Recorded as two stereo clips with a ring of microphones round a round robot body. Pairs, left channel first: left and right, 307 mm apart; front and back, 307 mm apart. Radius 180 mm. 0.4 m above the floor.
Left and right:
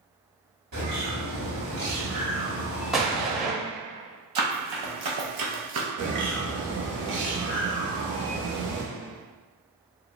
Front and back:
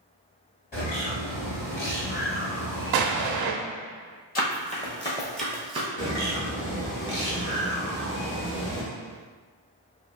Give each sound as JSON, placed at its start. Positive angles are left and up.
{"t": 0.7, "sound": "a bird", "azimuth_deg": -45, "distance_m": 1.9}
{"t": 2.9, "sound": "an explosion", "azimuth_deg": 180, "distance_m": 0.5}
{"t": 4.3, "sound": "running footsteps", "azimuth_deg": -60, "distance_m": 1.0}
{"t": 6.0, "sound": "a bird", "azimuth_deg": -45, "distance_m": 1.0}